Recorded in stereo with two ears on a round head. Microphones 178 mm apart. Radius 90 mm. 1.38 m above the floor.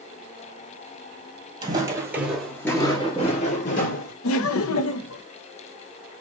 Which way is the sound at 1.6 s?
25° right (ahead or behind).